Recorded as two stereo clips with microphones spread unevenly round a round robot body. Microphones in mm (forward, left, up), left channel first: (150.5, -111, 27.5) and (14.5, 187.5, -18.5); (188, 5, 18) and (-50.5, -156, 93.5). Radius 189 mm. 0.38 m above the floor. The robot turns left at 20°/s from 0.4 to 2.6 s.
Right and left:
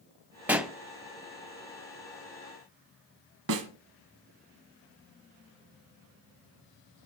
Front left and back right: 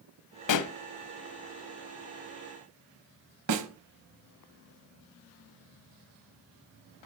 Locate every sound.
0.5 s a pop: 30° left, 0.9 m; by 0.7 s 25° left, 0.9 m
3.5 s a snare drum: 170° left, 1.0 m